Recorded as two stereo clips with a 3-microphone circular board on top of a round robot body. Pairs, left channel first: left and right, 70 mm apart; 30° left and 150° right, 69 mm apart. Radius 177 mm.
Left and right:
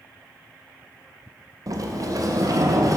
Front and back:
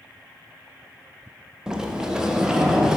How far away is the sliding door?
About 1.0 m.